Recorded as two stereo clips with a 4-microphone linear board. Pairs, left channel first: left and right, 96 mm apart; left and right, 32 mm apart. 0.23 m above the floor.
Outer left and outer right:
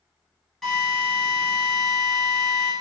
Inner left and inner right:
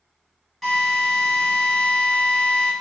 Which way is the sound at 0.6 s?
5° left (ahead or behind).